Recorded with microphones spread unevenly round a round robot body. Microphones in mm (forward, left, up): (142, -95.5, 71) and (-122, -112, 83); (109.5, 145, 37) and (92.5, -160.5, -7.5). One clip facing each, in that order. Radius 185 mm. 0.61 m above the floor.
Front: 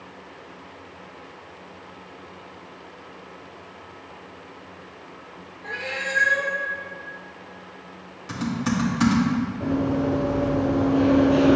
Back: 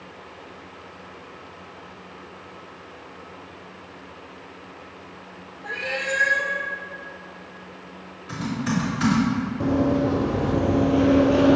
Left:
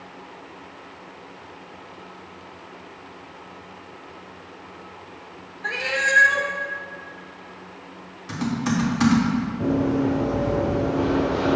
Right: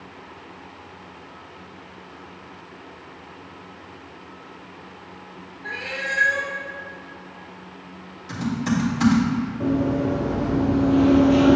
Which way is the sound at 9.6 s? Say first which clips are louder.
Back 4 dB, left 1 dB; 175° left.